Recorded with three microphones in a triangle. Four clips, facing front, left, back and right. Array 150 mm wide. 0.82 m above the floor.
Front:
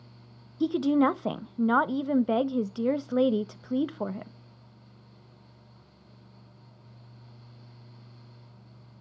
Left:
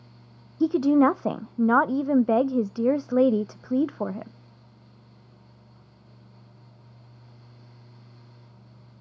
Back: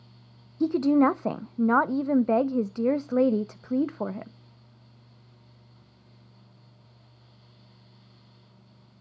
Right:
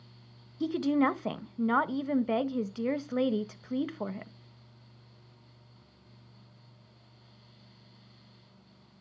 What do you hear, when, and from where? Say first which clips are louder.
0.6 s a woman speaking: left 8 dB, back 2 dB; 105° left, 0.5 m